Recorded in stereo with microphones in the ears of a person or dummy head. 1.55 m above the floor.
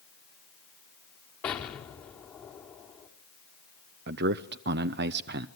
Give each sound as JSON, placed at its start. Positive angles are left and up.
{"t": 1.4, "sound": "an explosion", "side_deg": 10, "distance_m": 1.5}
{"t": 4.1, "sound": "a man speaking", "side_deg": -60, "distance_m": 0.7}